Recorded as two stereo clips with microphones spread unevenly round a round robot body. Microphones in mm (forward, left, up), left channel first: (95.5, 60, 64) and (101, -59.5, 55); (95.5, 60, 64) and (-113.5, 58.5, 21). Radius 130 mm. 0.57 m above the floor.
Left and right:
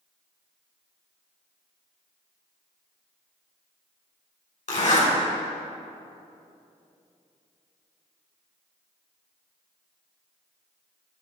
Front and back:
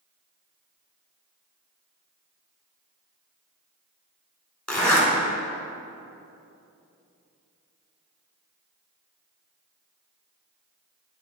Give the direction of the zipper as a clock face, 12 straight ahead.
9 o'clock.